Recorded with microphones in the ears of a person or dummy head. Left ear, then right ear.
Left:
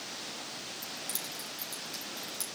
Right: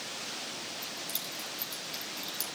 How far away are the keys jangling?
About 7 m.